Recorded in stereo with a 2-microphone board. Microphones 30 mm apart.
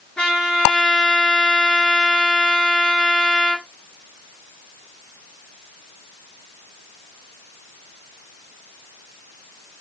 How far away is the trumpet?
About 2 m.